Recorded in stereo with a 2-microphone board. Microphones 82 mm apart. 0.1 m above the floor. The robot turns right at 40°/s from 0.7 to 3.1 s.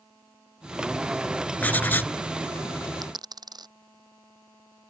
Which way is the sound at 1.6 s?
20° left (ahead or behind).